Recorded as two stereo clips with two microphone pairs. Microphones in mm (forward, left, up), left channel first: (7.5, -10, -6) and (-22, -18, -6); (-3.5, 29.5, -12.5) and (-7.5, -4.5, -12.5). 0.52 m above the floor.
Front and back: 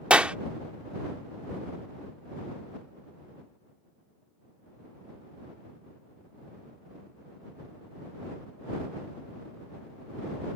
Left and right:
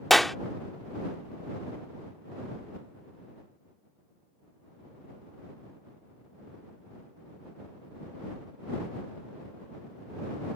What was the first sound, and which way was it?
A clap, 165° left.